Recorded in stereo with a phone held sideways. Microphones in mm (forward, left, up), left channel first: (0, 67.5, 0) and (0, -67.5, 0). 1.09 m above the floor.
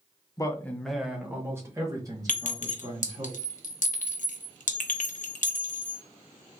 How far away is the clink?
About 0.7 m.